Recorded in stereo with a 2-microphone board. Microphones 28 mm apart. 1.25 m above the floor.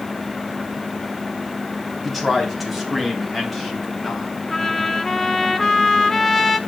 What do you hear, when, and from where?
2.0 s a man speaking: centre (ahead or behind), 3 m; by 4.3 s 5° right (ahead or behind), 5 m
4.5 s a trumpet: 15° left (ahead or behind), 0.9 m